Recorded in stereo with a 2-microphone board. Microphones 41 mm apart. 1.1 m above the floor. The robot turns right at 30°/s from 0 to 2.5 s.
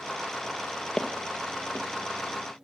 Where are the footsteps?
20° left (ahead or behind), 1.8 m; by 1.9 s 40° left (ahead or behind), 1.8 m.